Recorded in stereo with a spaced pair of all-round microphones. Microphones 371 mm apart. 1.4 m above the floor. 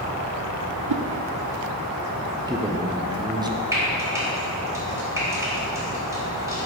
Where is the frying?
10° right (ahead or behind), 2.5 m.